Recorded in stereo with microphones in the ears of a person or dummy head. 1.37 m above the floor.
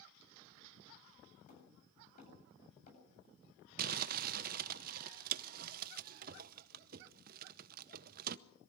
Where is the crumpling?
45° right (ahead or behind), 0.7 m.